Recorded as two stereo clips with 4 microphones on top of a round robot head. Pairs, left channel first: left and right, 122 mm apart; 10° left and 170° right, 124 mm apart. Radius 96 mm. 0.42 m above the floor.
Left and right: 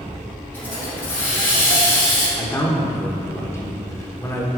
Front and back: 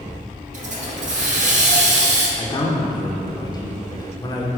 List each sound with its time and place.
0.5 s a hiss: 170° left, 1.8 m
2.4 s a man speaking: 35° left, 1.3 m